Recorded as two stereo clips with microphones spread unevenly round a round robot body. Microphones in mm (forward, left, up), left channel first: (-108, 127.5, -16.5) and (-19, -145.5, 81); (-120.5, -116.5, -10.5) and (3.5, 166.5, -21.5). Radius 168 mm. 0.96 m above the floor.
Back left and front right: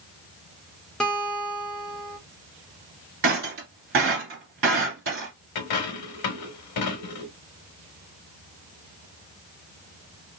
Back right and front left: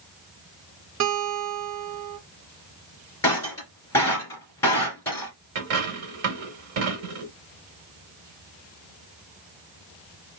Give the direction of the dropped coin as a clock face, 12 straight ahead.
9 o'clock.